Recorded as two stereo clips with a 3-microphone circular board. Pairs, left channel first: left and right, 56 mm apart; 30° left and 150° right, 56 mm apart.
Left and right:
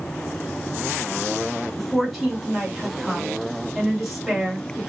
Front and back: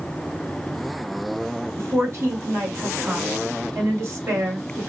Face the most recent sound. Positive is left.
turn(degrees=180)